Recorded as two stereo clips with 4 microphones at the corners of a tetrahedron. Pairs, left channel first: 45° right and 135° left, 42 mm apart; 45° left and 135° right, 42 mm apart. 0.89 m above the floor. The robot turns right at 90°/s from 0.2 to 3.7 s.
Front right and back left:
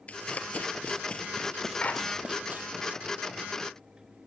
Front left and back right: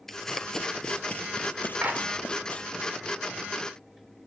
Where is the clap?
100° right, 2.5 m; by 2.0 s 80° right, 2.5 m.